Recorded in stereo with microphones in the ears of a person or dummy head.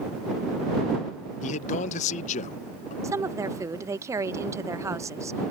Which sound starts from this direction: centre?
A woman speaking, at 3.0 s.